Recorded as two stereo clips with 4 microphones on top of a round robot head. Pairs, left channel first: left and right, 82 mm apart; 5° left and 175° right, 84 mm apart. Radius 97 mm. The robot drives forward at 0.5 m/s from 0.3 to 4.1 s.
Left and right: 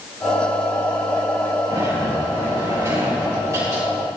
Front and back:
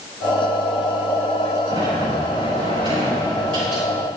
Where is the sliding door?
145° right, 6.5 m; by 3.8 s 150° right, 7.5 m.